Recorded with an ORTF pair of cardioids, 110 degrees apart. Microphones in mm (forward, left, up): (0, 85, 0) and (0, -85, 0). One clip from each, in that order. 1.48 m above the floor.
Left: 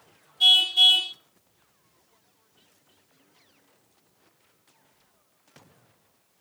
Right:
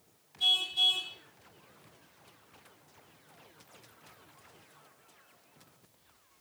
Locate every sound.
0.4 s a car horn: 65° left, 2.5 m